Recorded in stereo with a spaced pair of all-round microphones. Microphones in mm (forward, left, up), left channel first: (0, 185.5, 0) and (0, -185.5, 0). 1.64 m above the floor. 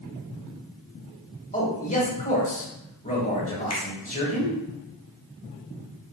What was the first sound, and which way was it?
A man speaking, 20° left (ahead or behind).